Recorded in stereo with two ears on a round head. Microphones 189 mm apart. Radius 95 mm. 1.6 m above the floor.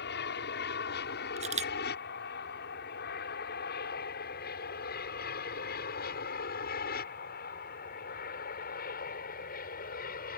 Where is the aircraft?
60° left (ahead or behind); by 10.4 s 50° left (ahead or behind).